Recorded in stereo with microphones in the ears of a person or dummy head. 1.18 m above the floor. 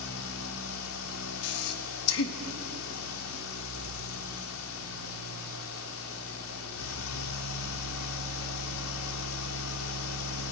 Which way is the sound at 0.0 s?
80° left.